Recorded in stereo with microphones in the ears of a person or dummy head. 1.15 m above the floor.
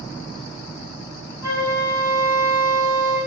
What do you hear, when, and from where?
1.4 s a flute: 20° right (ahead or behind), 1.1 m